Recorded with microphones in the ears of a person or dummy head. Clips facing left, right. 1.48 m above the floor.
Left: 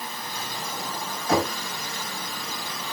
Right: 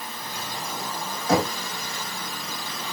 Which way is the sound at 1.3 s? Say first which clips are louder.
Right 1 dB; 75° right (ahead or behind).